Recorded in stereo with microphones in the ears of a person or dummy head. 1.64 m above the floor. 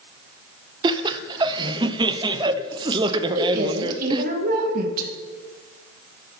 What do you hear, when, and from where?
0.8 s laughter: 25° right (ahead or behind), 0.7 m
3.4 s a woman speaking: 50° right (ahead or behind), 2 m